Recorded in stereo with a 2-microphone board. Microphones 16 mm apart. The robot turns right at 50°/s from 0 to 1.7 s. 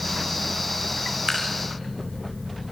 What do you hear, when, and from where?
1.3 s dripping: 50° right (ahead or behind), 6.5 m; by 1.5 s 40° right (ahead or behind), 6.5 m